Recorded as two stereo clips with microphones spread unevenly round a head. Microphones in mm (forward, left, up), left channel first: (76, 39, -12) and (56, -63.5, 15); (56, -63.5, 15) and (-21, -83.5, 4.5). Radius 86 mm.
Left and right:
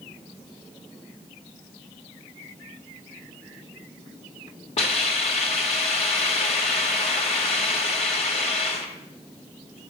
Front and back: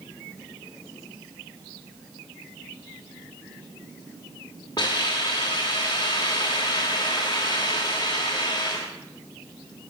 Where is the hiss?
85° left, 1.6 m.